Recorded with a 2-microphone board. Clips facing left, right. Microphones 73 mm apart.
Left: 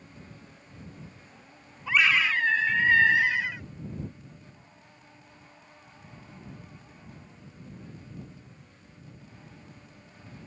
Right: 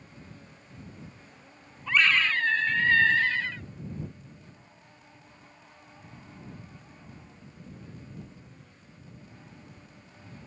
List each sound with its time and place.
1.9 s a scream: 5° left (ahead or behind); by 3.6 s 15° left (ahead or behind)